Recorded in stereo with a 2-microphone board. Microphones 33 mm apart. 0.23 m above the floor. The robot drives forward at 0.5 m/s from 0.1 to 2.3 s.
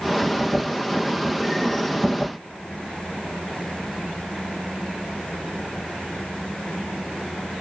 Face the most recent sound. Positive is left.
No sound to turn to.